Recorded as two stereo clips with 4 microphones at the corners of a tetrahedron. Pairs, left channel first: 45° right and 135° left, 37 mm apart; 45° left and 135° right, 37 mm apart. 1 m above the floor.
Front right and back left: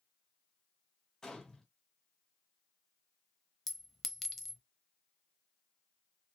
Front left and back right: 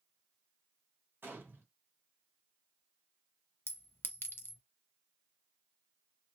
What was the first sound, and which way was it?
A gunshot, 120° right.